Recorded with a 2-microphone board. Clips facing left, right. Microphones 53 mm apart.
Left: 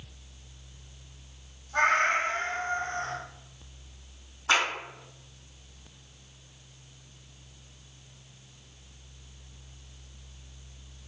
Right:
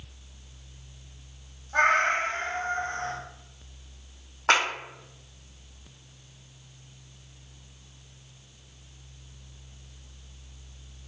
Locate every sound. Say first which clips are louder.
1.7 s a cat meowing: right 2 dB; 35° right (ahead or behind), 1.1 m
4.5 s a clap: right 3 dB; 70° right (ahead or behind), 1.0 m